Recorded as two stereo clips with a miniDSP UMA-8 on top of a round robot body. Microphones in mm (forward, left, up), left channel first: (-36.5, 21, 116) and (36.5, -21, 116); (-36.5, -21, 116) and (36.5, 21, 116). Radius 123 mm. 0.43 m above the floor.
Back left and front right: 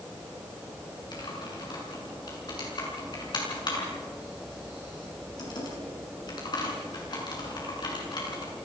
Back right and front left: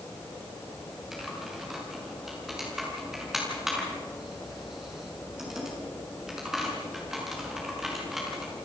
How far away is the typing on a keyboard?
About 6.5 m.